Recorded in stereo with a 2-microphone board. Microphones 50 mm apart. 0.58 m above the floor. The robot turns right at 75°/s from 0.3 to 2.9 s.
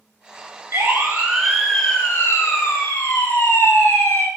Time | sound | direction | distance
0.7 | a siren | 60° right (ahead or behind) | 9.5 m